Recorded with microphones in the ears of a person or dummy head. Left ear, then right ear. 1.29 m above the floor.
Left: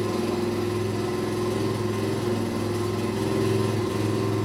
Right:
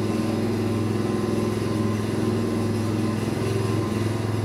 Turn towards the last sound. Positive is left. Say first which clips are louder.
# even
turn(degrees=30)  # may be behind; listen again after turning